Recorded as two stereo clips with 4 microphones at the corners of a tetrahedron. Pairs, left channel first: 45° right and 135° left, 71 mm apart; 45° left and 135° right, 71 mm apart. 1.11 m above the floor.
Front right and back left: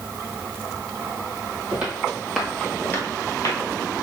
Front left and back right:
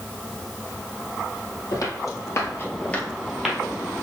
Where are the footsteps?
65° left, 1.9 m; by 3.6 s 55° right, 1.5 m.